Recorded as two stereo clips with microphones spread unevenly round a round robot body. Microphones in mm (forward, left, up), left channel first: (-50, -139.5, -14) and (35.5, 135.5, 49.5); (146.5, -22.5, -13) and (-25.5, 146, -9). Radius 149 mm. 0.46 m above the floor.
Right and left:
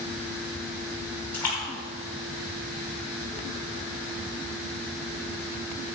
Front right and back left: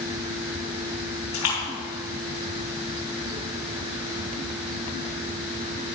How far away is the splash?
About 5 m.